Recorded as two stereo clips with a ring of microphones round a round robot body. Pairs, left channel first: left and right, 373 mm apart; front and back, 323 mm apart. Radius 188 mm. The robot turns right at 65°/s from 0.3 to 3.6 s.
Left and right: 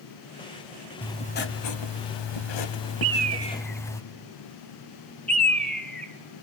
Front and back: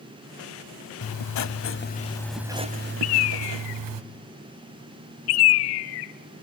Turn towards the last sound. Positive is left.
turn(degrees=5)